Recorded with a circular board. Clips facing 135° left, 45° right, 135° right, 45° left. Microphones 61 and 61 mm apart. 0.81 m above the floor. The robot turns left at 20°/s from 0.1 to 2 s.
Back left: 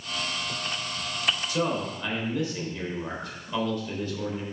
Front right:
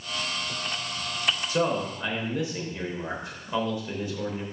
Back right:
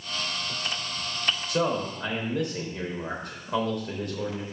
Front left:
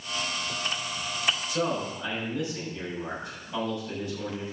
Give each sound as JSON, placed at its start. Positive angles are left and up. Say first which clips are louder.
{"t": 1.5, "sound": "a man speaking", "louder": "front right 4 dB, back right 2 dB", "azimuth_deg": -100, "distance_m": 3.5}